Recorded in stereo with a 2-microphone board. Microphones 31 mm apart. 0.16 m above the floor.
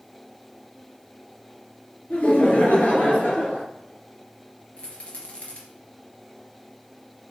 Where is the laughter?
60° left (ahead or behind), 2.5 m.